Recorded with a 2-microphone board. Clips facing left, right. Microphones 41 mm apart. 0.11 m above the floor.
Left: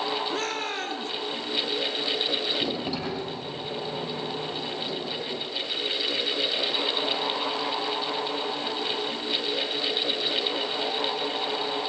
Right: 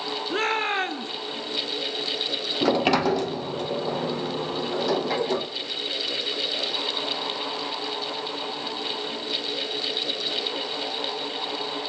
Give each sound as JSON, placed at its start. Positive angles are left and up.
{"t": 0.3, "sound": "a shout", "side_deg": -30, "distance_m": 1.7}
{"t": 2.6, "sound": "a sliding door", "side_deg": -65, "distance_m": 2.0}